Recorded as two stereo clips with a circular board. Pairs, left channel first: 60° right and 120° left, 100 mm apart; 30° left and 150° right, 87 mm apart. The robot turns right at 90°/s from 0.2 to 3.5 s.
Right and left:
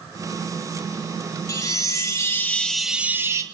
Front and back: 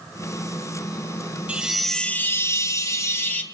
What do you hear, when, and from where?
1.5 s a chime: 85° right, 1.5 m; by 3.4 s 90° left, 1.5 m